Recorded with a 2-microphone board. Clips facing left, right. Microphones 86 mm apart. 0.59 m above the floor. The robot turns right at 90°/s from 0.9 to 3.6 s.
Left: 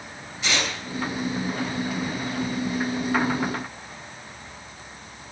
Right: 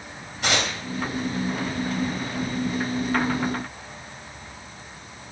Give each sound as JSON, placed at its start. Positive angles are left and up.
{"t": 0.4, "sound": "tearing paper", "side_deg": -55, "distance_m": 3.0}